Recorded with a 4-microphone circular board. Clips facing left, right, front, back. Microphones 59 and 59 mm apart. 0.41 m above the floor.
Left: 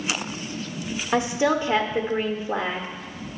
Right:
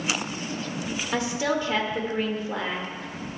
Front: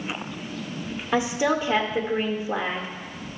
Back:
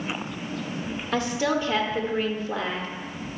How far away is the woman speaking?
About 1.0 m.